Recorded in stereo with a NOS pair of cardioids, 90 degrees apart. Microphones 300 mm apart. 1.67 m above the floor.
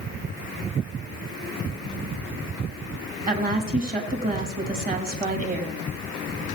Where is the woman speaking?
30° right, 4 m.